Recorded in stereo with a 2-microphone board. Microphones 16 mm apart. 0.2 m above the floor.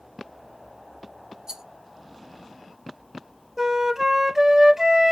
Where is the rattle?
35° right (ahead or behind), 1.0 m.